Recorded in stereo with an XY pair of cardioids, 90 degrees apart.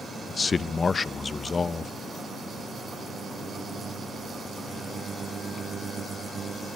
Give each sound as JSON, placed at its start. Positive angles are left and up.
{"t": 0.3, "sound": "a man speaking", "azimuth_deg": 40, "distance_m": 0.7}